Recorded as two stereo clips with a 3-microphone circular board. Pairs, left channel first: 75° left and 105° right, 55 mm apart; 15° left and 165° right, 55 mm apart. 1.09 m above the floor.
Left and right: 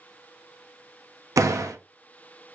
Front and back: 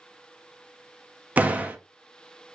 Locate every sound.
1.4 s a door slam: 105° right, 0.7 m